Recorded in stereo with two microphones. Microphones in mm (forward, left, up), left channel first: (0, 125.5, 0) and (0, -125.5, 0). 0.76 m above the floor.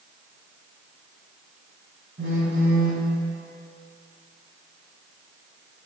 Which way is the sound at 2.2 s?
50° right (ahead or behind).